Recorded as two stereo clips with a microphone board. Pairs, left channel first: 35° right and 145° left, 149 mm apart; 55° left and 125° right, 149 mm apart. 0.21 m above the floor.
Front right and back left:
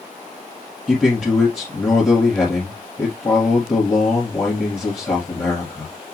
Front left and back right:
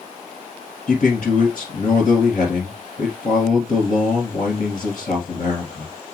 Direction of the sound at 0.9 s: 50° left.